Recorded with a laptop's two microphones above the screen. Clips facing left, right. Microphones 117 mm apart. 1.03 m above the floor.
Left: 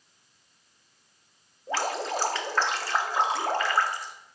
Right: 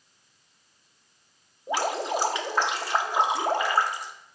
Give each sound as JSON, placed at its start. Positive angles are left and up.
{"t": 1.7, "sound": "dripping", "side_deg": -15, "distance_m": 0.5}